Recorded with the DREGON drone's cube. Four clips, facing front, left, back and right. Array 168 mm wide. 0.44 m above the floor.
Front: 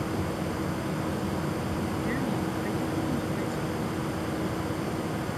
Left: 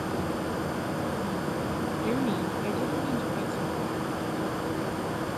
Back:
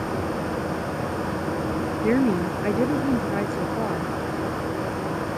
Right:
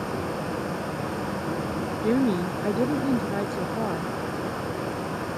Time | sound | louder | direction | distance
2.0 | a woman speaking | right 7 dB, back 13 dB | 155° right | ?